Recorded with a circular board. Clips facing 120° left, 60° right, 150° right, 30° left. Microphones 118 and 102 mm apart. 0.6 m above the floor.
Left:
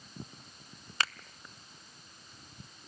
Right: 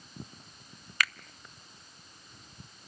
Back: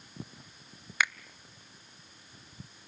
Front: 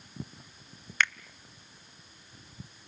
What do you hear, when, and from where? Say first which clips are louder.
1.0 s a finger snap: right 2 dB, front 1 dB; 140° left, 0.5 m